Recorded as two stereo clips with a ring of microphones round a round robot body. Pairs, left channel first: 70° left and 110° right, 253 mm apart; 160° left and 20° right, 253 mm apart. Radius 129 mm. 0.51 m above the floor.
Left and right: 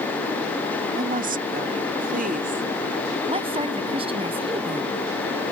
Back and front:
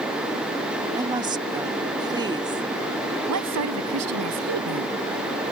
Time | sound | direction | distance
1.0 | a woman speaking | 85° right | ?
3.3 | a woman speaking | 45° right | ?